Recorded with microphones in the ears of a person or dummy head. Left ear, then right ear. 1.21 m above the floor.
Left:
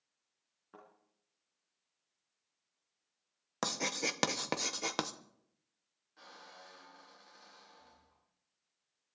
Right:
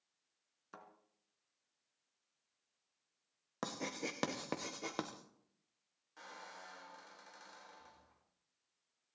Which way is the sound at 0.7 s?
75° right (ahead or behind).